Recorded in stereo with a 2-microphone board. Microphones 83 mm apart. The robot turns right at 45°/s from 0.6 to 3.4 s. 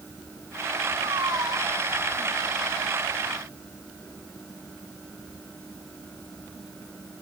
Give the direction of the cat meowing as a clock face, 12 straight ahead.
3 o'clock.